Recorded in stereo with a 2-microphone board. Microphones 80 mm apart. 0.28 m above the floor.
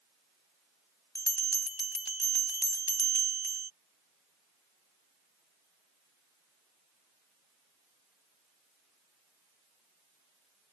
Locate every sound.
1.1 s a bell: 50° left (ahead or behind)